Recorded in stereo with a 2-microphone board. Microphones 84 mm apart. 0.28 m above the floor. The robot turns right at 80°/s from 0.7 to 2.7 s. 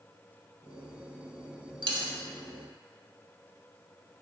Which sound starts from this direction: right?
A dropped coin, at 1.8 s.